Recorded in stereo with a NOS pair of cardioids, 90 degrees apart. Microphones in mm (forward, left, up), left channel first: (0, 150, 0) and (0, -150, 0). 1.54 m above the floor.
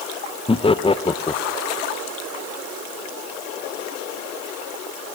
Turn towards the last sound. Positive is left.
turn(degrees=15)